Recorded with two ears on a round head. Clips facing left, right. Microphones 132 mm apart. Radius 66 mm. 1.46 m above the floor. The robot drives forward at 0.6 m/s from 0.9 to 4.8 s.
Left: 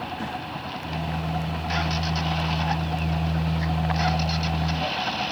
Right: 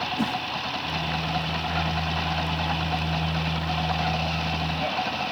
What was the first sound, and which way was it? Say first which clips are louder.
A whoosh: right 5 dB; 65° right (ahead or behind).